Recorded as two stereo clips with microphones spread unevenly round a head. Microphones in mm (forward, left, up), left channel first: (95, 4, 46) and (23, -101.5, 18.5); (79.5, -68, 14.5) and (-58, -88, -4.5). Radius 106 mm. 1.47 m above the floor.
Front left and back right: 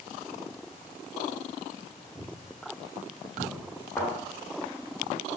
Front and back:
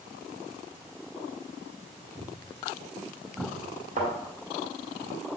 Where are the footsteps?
80° right, 2.5 m; by 3.5 s 110° right, 3 m.